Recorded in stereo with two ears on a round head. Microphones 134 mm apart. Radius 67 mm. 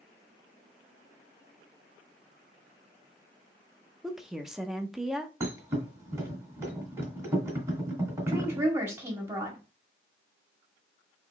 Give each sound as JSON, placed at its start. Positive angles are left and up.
{"t": 4.0, "sound": "a woman speaking", "side_deg": -5, "distance_m": 0.6}
{"t": 5.4, "sound": "a thud", "side_deg": -20, "distance_m": 1.6}
{"t": 8.3, "sound": "a woman speaking", "side_deg": -20, "distance_m": 1.6}